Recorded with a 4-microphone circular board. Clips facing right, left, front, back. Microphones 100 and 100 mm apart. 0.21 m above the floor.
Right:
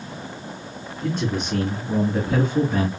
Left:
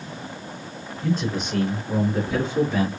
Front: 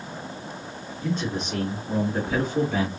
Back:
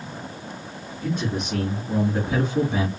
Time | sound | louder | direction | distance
1.0 | a man speaking | even, back 1 dB | 100° right | 2.5 m